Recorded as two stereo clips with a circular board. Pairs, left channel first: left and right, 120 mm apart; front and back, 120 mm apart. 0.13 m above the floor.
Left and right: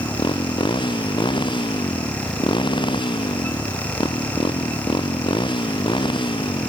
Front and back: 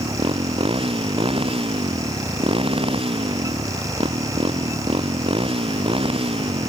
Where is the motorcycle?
140° left.